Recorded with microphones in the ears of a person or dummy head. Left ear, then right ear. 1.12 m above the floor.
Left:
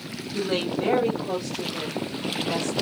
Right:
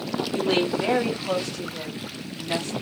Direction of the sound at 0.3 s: 65° right (ahead or behind).